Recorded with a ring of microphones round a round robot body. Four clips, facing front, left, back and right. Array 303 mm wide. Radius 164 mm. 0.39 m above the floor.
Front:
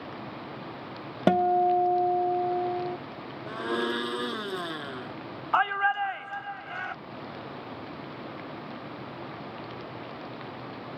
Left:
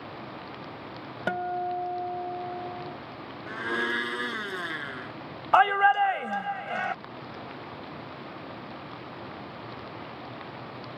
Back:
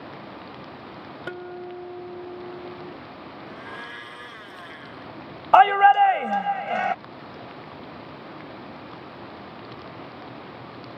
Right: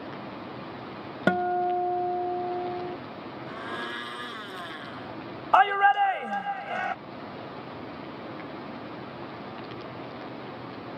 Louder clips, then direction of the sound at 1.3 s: Right 5 dB, front 15 dB; 30° right.